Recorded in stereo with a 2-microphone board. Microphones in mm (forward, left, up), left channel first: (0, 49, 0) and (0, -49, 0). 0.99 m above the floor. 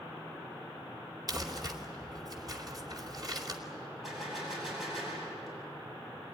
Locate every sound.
1.3 s crumpling: 45° right (ahead or behind), 2.5 m
4.0 s a gunshot: centre (ahead or behind), 8 m